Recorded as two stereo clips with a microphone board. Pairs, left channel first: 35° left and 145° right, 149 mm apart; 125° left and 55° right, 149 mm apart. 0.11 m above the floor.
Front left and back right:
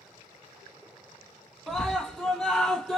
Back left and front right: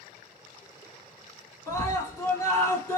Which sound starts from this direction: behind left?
A scream, at 1.7 s.